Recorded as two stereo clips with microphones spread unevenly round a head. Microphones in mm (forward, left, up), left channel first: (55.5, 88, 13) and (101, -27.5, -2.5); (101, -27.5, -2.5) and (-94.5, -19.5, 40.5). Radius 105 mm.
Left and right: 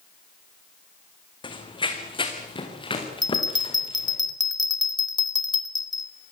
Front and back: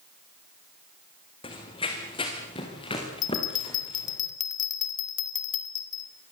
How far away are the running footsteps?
About 3 m.